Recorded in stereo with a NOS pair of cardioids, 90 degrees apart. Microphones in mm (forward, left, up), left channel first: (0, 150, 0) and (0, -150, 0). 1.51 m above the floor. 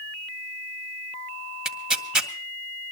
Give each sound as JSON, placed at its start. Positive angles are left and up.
{"t": 1.6, "sound": "tearing paper", "azimuth_deg": 0, "distance_m": 1.7}